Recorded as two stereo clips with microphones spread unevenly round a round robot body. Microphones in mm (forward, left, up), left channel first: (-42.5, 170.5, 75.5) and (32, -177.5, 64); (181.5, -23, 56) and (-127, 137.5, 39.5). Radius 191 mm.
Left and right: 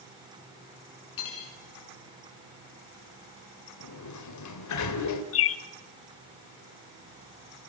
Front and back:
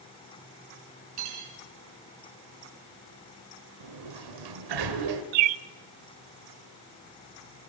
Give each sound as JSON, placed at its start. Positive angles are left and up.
{"t": 1.2, "sound": "cutlery clinking", "azimuth_deg": 140, "distance_m": 5.5}
{"t": 3.8, "sound": "a sliding door", "azimuth_deg": 145, "distance_m": 3.0}
{"t": 5.3, "sound": "a bird", "azimuth_deg": 155, "distance_m": 0.8}